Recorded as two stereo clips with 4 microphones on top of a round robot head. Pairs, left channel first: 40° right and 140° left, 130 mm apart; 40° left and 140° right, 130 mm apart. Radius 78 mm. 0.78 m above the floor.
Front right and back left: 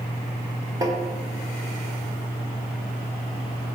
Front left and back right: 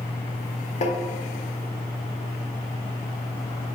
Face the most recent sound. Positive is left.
turn(degrees=75)